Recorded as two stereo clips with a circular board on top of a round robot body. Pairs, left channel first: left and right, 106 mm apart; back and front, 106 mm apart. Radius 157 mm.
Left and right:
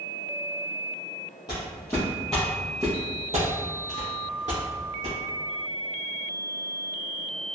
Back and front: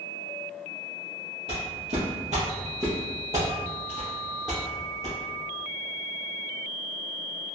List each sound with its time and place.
1.5 s footsteps: 35° left, 1.0 m; by 5.2 s 95° right, 1.6 m